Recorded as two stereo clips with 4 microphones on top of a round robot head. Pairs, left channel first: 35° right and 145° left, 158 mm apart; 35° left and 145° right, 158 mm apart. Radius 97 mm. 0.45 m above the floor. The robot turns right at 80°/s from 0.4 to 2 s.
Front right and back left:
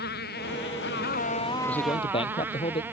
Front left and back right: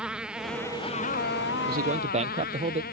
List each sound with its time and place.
0.0 s a motorcycle: 60° right; by 2.9 s 65° left
1.7 s a man speaking: 120° right; by 2.8 s 95° right